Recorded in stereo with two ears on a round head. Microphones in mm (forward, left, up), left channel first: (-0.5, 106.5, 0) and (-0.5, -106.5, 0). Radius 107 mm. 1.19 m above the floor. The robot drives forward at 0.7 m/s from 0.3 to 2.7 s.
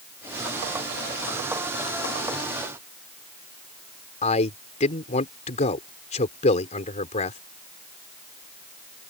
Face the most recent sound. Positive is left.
turn(degrees=30)  # may be behind; listen again after turning